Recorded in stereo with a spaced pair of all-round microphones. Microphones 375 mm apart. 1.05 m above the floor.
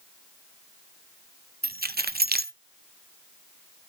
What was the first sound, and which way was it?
Keys jangling, 25° right (ahead or behind).